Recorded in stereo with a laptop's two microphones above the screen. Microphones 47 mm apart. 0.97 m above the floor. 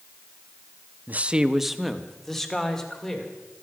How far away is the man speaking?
About 0.6 m.